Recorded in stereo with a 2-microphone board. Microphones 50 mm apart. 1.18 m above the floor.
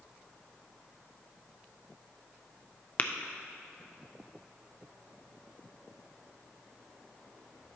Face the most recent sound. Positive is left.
turn(degrees=30)  # may be behind; listen again after turning